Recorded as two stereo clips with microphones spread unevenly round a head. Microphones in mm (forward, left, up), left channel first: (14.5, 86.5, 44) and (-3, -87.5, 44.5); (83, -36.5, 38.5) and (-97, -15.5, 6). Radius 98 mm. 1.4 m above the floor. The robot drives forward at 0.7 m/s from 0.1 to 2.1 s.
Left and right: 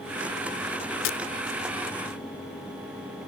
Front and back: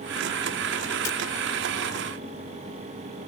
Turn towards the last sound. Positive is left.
turn(degrees=85)